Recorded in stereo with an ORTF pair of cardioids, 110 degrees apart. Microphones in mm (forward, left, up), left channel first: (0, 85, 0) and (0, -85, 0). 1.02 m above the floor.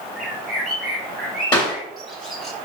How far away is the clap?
About 2.5 m.